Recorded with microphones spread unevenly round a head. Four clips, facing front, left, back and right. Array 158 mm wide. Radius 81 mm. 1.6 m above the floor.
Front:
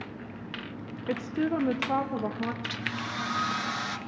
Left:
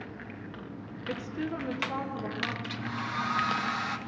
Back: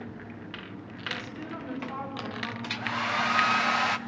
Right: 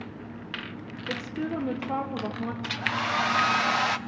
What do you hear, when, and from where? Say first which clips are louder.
1.1 s a woman speaking: right 3 dB, front 11 dB; 10° right, 0.9 m; by 2.5 s 35° right, 1.7 m
2.6 s a hair dryer: right 5 dB, back 3 dB; 120° right, 0.8 m